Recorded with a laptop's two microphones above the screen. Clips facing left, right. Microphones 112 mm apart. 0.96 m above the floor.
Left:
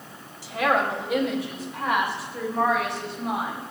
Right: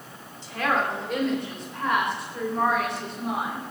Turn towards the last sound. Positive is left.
turn(degrees=0)  # may be behind; listen again after turning